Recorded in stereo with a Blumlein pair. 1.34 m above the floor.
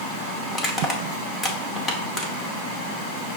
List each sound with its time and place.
0.5 s crushing: 10° left, 0.8 m